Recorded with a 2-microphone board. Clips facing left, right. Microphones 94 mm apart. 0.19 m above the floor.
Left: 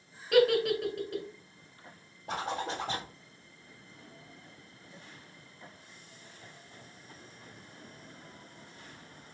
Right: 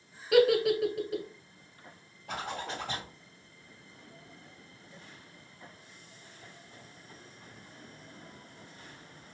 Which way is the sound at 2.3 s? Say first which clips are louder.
Left 3 dB; 35° left (ahead or behind).